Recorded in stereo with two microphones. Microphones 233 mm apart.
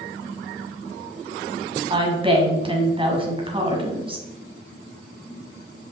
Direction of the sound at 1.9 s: 20° right (ahead or behind).